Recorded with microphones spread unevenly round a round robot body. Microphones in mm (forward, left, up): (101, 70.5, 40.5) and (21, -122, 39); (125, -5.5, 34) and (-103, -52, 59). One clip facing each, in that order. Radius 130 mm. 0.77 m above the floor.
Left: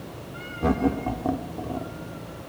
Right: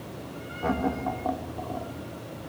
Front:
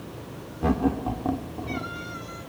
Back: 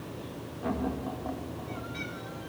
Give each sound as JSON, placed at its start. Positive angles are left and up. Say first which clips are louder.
{"t": 0.6, "sound": "laughter", "louder": "left 5 dB, front 8 dB", "azimuth_deg": 25, "distance_m": 3.0}